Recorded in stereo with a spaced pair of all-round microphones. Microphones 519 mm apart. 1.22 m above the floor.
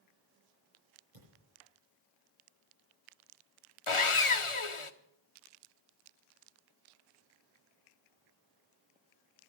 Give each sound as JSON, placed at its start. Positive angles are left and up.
{"t": 1.1, "sound": "a thud", "side_deg": -80, "distance_m": 9.0}
{"t": 3.9, "sound": "sawing", "side_deg": 60, "distance_m": 1.0}